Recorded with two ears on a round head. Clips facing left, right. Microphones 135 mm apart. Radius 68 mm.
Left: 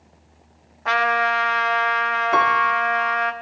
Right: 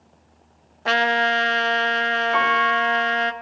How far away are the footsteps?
No footsteps in this recording.